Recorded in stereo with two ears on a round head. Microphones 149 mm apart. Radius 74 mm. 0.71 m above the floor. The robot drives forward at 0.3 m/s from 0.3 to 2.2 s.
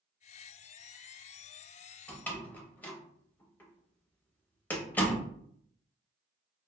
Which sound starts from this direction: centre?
A door slam, at 2.1 s.